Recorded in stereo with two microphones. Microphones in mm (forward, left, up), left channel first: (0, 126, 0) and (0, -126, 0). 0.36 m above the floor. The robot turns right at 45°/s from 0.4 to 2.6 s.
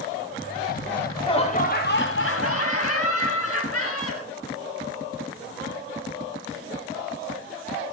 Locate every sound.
0.9 s laughter: 5° left, 3.5 m; by 4.3 s 80° left, 3.5 m